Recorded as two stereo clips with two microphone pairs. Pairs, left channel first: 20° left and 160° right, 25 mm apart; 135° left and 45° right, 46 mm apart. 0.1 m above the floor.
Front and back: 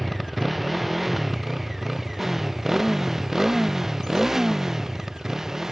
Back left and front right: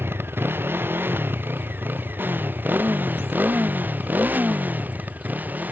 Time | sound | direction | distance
0.0 | a motorcycle | 75° right | ?